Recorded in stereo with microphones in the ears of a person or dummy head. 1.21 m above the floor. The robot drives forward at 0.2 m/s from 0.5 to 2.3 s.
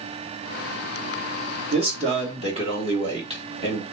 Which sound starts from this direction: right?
A man speaking, at 1.7 s.